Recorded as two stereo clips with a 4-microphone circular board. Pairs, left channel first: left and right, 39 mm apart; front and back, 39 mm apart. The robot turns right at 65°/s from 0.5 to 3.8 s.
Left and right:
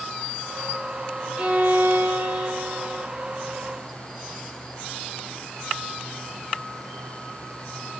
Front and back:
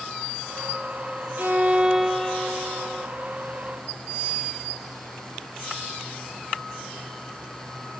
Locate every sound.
1.4 s a violin: 150° right, 1.7 m; by 3.1 s 40° right, 1.7 m